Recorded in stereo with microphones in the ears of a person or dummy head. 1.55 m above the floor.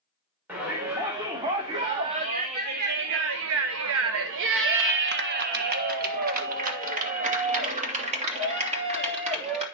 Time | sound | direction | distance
0.5 | a shout | 10° right (ahead or behind) | 1.7 m